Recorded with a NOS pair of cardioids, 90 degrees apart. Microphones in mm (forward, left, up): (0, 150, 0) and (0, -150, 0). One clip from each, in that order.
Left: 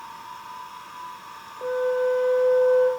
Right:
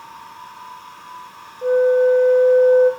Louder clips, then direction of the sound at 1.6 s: Right 9 dB; 50° left.